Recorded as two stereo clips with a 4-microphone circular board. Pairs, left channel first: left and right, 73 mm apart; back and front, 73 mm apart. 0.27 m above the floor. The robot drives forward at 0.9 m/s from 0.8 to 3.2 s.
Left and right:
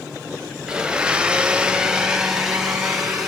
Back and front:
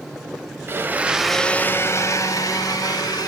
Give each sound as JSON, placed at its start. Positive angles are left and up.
{"t": 0.7, "sound": "a blender", "azimuth_deg": -20, "distance_m": 0.8}